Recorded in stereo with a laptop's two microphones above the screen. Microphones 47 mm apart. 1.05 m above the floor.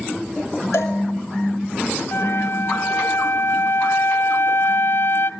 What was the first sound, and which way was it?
A cowbell, 85° left.